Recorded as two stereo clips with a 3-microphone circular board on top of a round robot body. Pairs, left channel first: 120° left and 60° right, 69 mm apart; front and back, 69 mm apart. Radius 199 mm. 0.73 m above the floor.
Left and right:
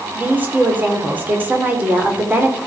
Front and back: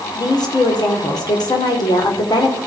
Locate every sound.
0.1 s a woman speaking: 5° left, 3 m